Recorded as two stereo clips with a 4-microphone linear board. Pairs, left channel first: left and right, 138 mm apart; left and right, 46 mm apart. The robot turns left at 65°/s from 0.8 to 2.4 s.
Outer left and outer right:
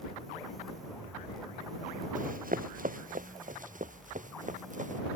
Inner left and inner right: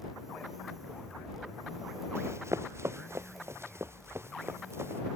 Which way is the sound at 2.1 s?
65° right (ahead or behind).